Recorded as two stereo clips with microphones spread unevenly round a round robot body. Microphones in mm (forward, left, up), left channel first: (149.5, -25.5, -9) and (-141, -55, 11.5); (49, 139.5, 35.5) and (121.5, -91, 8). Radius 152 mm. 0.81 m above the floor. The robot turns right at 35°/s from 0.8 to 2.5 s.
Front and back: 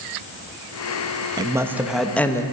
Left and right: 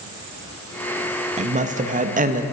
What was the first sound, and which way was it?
A woman speaking, 100° right.